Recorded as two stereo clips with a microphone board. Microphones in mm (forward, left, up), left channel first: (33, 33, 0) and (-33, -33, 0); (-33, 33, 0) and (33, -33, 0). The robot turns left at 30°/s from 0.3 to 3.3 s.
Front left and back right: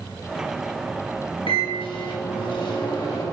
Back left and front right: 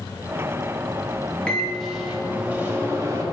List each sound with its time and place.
1.5 s a microwave: 60° left, 1.7 m; by 3.2 s 5° left, 1.7 m